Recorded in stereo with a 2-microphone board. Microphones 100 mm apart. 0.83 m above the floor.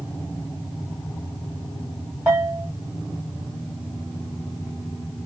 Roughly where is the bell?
Right.